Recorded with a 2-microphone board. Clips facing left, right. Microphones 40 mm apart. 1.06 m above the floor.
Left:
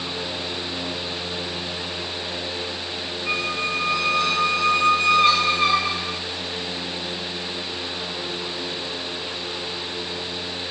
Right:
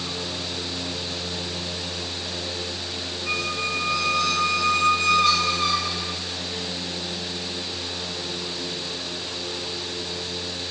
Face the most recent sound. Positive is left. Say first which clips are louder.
# left 2 dB
turn(degrees=30)  # may be behind; listen again after turning